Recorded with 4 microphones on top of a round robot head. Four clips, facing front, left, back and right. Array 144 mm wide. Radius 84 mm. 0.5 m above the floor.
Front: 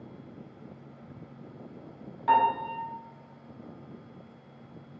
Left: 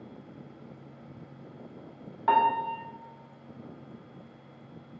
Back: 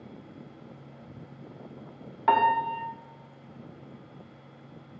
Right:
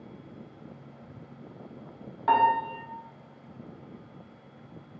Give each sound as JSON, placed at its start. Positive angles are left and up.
{"t": 2.3, "sound": "a piano", "azimuth_deg": 180, "distance_m": 0.5}